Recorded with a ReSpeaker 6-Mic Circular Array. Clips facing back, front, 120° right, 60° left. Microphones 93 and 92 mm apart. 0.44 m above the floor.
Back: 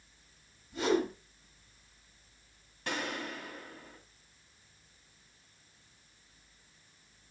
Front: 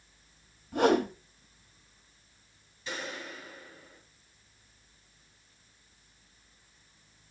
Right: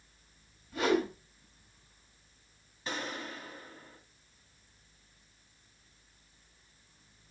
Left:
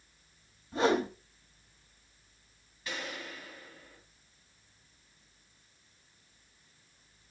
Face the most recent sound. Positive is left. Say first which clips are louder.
# back 3 dB, right 2 dB
turn(degrees=-175)